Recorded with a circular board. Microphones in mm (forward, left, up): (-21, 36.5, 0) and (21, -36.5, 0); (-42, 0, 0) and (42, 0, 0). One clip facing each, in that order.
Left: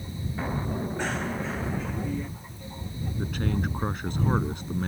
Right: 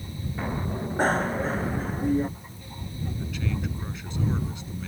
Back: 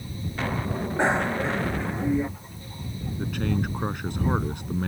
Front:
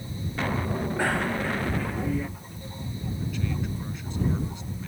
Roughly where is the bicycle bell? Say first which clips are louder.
Right 6 dB, back 5 dB; right.